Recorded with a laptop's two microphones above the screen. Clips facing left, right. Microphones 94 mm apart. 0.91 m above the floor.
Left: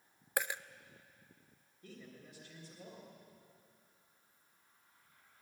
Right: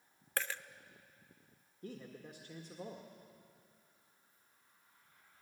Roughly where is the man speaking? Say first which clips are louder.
Right 5 dB; right.